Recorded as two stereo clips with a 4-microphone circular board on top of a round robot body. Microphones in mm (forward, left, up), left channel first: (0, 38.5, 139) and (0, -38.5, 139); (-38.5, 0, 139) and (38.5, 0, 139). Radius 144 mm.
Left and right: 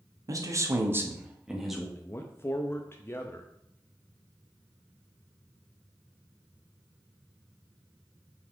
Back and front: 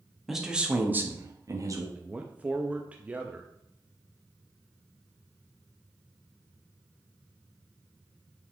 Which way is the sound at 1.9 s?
60° left.